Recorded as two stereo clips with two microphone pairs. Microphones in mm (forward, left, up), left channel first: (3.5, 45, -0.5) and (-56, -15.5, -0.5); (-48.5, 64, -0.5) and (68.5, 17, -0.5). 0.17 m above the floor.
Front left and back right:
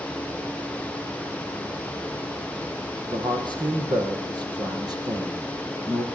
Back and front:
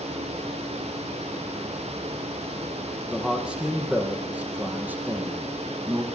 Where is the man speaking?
110° right, 6 m; by 6.0 s 95° right, 5 m.